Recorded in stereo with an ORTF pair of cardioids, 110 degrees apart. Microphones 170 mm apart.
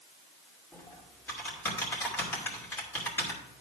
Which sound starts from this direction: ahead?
Typing on a keyboard, at 0.7 s.